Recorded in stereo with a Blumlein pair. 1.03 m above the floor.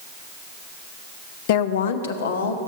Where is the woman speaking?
50° left, 0.6 m; by 2.6 s 65° left, 1.5 m.